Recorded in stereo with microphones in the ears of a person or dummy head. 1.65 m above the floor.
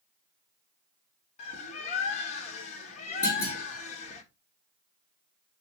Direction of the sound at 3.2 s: 20° left (ahead or behind).